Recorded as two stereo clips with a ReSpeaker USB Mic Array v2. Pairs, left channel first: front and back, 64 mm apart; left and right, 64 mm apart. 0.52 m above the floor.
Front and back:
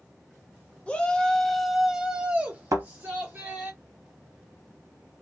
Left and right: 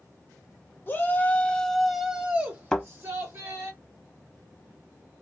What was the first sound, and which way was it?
A shout, 55° left.